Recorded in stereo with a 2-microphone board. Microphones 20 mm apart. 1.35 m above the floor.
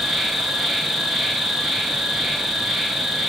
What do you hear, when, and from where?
0.0 s an insect: 10° right (ahead or behind), 3 m